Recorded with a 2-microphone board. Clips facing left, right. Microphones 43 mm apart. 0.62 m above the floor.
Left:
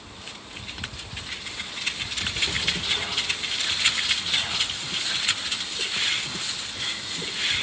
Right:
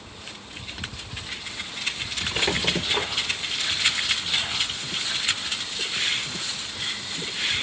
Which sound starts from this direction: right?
A squeak, at 2.3 s.